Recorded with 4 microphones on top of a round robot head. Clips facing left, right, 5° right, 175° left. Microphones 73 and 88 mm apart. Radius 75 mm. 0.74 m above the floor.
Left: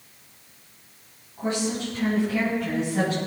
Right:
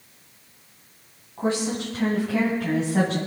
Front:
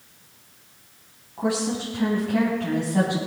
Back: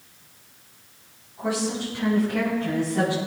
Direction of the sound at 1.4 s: 40° right.